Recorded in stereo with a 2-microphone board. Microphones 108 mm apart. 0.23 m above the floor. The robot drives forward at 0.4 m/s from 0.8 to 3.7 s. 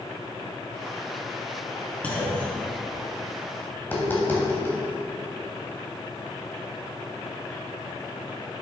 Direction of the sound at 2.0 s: 15° left (ahead or behind).